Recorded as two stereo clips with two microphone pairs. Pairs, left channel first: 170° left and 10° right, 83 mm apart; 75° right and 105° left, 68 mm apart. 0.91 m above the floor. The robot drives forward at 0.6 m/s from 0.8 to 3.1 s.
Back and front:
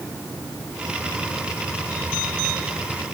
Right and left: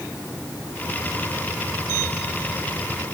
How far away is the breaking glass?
No breaking glass in this recording.